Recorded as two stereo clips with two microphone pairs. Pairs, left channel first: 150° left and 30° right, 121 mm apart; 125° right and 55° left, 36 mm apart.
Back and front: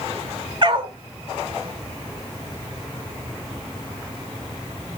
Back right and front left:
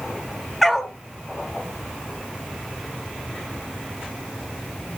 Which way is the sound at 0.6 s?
35° right.